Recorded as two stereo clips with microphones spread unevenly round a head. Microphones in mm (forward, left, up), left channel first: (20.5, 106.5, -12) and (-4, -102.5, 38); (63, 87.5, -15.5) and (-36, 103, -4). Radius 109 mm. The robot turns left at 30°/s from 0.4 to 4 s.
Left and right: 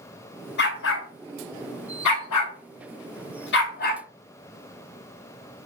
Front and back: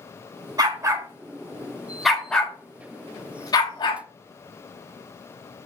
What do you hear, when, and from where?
0.6 s a dog barking: 130° left, 2.5 m; by 4.0 s 25° left, 2.5 m